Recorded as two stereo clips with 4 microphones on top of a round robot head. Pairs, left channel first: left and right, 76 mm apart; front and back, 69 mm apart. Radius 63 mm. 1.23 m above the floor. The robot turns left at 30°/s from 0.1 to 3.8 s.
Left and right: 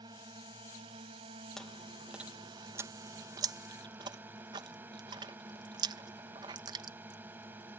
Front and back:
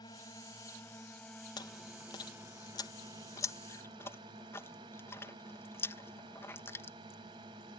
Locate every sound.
0.0 s a drone: 45° right; by 7.8 s 155° right
1.6 s chewing: 5° left; by 7.8 s 60° right